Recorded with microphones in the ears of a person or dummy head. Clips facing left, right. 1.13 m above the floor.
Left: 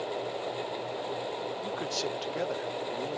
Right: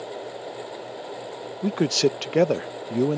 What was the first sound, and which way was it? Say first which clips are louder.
A man speaking: right 17 dB; 75° right (ahead or behind).